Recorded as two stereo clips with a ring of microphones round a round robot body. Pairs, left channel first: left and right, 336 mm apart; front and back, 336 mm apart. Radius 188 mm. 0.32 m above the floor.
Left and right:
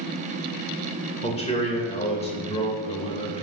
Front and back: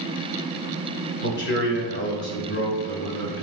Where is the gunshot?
I don't hear a gunshot.